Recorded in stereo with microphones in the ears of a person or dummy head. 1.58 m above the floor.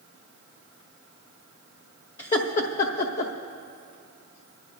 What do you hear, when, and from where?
2.2 s laughter: 30° left (ahead or behind), 0.9 m; by 3.3 s 65° left (ahead or behind), 1.0 m